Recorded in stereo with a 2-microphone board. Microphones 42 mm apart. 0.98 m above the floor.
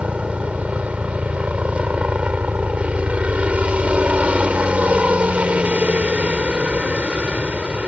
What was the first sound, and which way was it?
A helicopter, 30° right (ahead or behind).